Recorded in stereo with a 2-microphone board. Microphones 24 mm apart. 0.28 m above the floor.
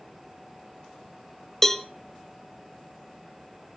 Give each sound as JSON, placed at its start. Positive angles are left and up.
{"t": 1.6, "sound": "a cowbell", "side_deg": 15, "distance_m": 0.9}